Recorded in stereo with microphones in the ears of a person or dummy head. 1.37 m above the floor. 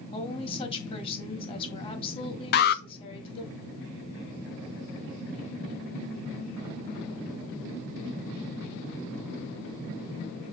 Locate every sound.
0.1 s a woman speaking: 30° left (ahead or behind), 2.0 m
2.5 s an alarm: 50° left (ahead or behind), 0.5 m